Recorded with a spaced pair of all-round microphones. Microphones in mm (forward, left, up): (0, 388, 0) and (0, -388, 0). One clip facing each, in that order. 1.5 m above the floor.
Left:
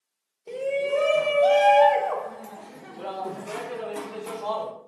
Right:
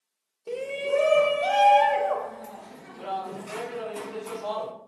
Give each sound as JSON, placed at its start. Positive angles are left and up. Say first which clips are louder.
{"t": 0.5, "sound": "a shout", "louder": "left 2 dB", "side_deg": -45, "distance_m": 0.8}